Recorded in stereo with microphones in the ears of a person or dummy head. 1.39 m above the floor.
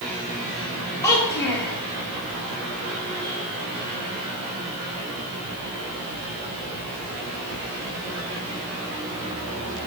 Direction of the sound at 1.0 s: 15° left (ahead or behind).